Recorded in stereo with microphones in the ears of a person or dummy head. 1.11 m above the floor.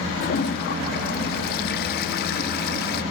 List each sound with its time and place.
0.2 s a toilet flushing: 55° left (ahead or behind), 0.8 m